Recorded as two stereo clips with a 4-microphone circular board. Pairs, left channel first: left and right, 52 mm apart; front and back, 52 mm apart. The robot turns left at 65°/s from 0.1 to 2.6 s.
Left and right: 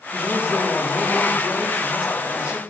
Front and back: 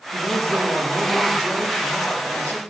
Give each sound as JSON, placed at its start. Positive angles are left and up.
{"t": 0.1, "sound": "a man speaking", "azimuth_deg": -140, "distance_m": 4.5}